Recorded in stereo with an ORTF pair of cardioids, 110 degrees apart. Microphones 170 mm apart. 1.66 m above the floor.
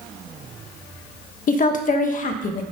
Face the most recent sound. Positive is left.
turn(degrees=50)